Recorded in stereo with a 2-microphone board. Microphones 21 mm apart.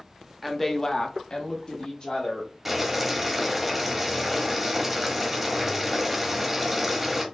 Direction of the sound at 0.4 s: Centre (ahead or behind).